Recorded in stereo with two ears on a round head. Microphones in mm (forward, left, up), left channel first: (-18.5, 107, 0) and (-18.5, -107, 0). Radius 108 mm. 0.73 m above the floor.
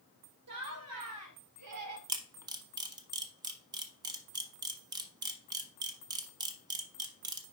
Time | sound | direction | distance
0.5 | laughter | 75° right (ahead or behind) | 2.5 m
2.1 | a camera shutter | 15° right (ahead or behind) | 0.8 m